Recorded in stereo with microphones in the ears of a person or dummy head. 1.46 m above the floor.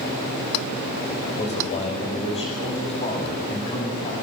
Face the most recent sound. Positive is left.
turn(degrees=30)  # may be behind; listen again after turning